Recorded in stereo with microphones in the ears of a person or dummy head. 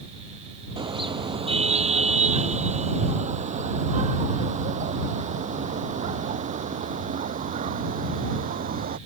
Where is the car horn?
25° right (ahead or behind); by 9.0 s 40° right (ahead or behind).